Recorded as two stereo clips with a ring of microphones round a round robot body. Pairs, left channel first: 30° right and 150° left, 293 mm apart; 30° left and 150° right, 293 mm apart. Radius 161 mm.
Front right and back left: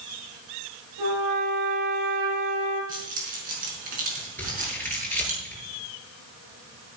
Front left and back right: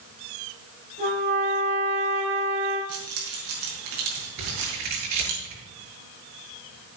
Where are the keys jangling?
150° right, 5 m.